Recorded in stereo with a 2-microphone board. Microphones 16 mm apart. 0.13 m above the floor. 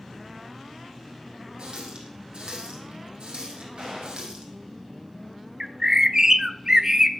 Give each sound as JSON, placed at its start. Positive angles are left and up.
{"t": 1.6, "sound": "a running tap", "side_deg": -75, "distance_m": 3.5}
{"t": 3.8, "sound": "a gunshot", "side_deg": -65, "distance_m": 7.5}
{"t": 5.6, "sound": "a bird", "side_deg": -30, "distance_m": 0.5}